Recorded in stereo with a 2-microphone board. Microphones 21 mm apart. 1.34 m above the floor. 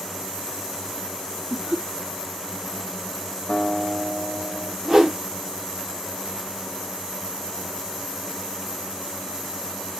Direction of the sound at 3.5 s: 50° left (ahead or behind).